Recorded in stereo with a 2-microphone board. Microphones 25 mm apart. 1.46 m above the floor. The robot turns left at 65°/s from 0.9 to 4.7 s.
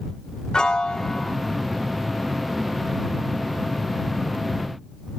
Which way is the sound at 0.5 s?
35° left (ahead or behind).